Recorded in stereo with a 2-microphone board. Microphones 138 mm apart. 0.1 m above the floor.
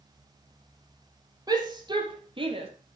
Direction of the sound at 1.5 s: 30° right (ahead or behind).